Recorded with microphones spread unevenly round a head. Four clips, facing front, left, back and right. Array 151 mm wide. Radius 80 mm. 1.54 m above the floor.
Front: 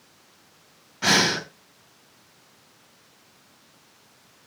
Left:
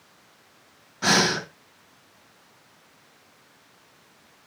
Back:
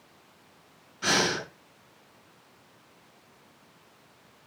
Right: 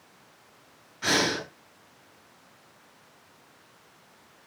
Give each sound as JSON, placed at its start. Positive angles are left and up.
{"t": 1.0, "sound": "breathing", "azimuth_deg": 45, "distance_m": 3.5}